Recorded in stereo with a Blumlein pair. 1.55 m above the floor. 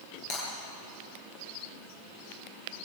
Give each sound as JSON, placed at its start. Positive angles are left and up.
{"t": 0.3, "sound": "breaking glass", "azimuth_deg": 40, "distance_m": 9.5}